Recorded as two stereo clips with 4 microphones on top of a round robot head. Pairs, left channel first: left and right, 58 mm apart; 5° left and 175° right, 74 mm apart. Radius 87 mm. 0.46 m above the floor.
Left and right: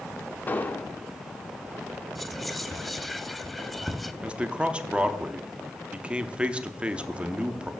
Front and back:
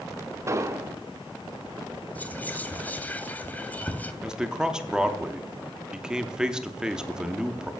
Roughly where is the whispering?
Ahead.